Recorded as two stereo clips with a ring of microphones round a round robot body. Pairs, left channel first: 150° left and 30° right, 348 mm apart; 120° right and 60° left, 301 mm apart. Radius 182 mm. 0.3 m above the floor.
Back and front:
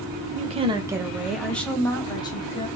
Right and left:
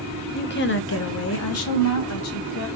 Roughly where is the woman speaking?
Right.